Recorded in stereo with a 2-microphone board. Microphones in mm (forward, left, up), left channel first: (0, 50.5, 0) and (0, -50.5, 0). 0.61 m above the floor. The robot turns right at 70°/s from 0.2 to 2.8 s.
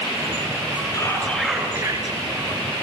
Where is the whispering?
145° left, 7.5 m; by 2.2 s 125° right, 7.5 m.